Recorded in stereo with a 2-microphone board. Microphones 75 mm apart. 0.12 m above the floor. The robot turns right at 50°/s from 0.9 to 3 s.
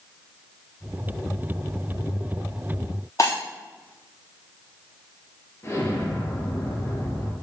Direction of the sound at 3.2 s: 45° left (ahead or behind).